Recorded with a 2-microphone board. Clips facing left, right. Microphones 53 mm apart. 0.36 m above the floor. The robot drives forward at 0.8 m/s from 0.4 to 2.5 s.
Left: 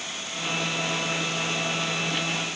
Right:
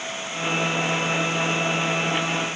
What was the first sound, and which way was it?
Only background noise.